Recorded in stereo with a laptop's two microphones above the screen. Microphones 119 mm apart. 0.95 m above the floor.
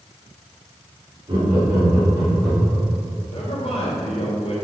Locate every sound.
1.3 s laughter: 50° right (ahead or behind), 2.5 m; by 2.9 s 20° right (ahead or behind), 2 m
3.3 s a man speaking: 60° left (ahead or behind), 3 m